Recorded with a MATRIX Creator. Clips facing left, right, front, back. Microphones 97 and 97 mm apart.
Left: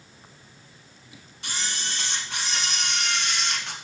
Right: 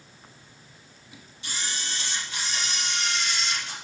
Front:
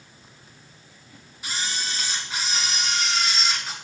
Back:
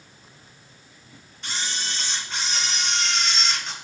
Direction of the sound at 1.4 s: 80° left.